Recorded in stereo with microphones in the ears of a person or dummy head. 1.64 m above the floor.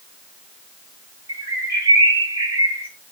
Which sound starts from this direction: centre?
A bird, at 1.3 s.